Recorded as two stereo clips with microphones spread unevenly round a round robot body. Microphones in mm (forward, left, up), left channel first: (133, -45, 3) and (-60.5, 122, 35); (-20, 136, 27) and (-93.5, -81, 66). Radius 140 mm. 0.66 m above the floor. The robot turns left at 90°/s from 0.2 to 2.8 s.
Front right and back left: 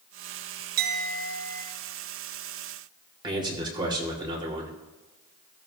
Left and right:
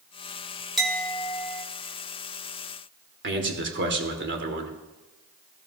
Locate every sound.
0.8 s a clink: 160° left, 1.7 m; by 1.6 s 85° left, 1.7 m
3.2 s a man speaking: 145° right, 2.0 m